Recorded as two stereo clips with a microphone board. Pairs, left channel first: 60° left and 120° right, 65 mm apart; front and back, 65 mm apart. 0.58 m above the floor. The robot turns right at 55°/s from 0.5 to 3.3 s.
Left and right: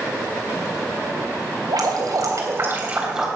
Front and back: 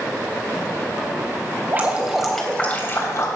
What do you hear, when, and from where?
1.7 s dripping: 125° right, 3.5 m; by 3.3 s 40° right, 3.5 m